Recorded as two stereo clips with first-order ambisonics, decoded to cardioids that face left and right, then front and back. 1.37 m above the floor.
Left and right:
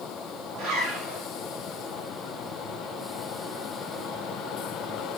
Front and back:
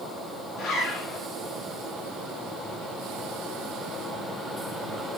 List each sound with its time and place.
0.6 s a zipper: 55° right, 2.5 m